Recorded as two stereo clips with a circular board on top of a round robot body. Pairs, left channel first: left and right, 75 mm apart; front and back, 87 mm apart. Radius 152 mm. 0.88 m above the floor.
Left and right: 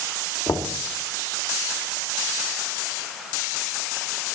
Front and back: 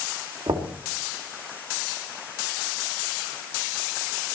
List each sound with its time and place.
0.5 s knocking: 150° left, 2.5 m